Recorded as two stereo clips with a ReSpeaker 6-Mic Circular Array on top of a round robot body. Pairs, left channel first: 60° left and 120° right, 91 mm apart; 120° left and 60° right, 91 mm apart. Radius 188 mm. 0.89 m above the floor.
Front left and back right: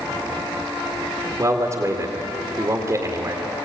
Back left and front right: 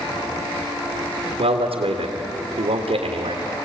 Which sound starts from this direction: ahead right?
A man speaking, at 1.4 s.